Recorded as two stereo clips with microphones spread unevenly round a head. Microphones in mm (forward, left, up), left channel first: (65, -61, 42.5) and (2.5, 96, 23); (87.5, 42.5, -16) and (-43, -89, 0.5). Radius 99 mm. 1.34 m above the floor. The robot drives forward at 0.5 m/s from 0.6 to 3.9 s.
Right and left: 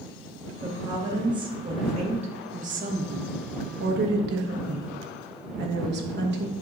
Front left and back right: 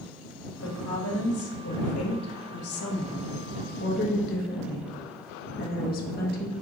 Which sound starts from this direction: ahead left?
A woman speaking, at 0.6 s.